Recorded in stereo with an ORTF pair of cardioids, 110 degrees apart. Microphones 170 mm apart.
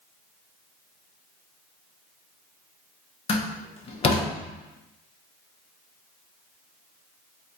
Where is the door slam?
35° left, 0.7 m.